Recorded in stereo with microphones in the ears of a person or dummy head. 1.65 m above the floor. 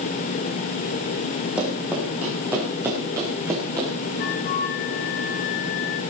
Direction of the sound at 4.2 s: 55° left (ahead or behind).